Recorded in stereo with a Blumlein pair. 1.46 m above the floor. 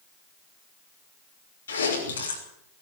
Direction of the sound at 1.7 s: 70° left.